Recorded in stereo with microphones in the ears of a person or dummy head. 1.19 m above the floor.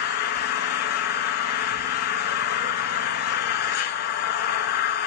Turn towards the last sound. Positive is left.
turn(degrees=50)  # may be behind; listen again after turning